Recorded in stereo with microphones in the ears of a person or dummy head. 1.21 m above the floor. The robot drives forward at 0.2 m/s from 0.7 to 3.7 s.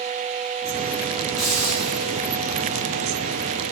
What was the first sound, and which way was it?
A hiss, 5° right (ahead or behind).